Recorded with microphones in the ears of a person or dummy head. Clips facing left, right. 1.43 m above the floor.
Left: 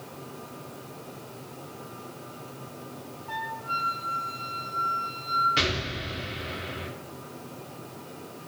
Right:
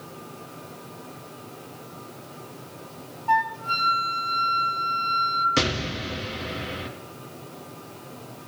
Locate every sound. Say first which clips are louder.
3.3 s a flute: right 12 dB; 75° right (ahead or behind), 1.1 m
5.6 s an explosion: right 7 dB; 60° right (ahead or behind), 1.0 m